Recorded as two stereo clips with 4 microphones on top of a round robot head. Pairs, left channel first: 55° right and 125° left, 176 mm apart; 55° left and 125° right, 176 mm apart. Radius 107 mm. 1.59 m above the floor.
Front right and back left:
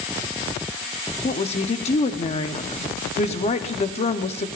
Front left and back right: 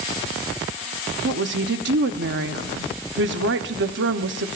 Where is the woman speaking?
110° right, 1.0 m.